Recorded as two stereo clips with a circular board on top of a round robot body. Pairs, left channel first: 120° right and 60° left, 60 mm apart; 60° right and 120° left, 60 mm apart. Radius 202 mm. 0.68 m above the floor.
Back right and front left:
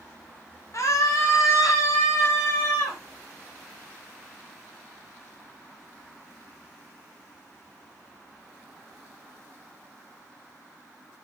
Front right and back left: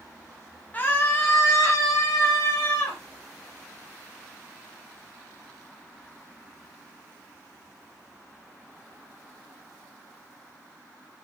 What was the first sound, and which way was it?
A scream, 120° right.